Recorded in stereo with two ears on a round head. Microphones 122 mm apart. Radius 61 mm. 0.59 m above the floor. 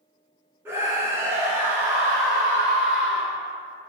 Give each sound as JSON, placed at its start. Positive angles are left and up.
{"t": 0.7, "sound": "a scream", "side_deg": -15, "distance_m": 0.7}